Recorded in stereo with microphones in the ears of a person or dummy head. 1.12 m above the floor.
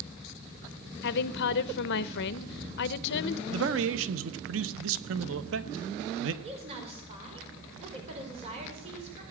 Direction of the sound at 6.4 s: 35° right (ahead or behind).